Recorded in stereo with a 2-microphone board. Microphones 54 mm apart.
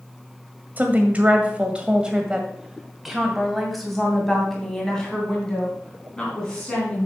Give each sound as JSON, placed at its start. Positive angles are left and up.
{"t": 0.8, "sound": "a woman speaking", "side_deg": -30, "distance_m": 1.6}